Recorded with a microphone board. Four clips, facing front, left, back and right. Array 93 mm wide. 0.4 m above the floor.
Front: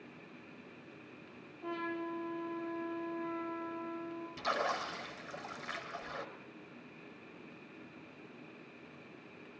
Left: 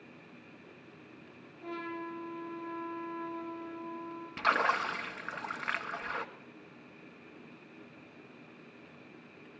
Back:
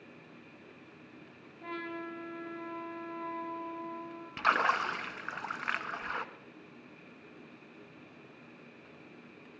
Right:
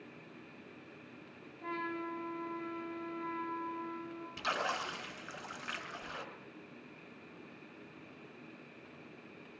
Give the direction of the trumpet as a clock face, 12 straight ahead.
5 o'clock.